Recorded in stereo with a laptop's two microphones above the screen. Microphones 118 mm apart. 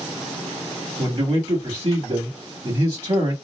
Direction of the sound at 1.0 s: 55° right (ahead or behind).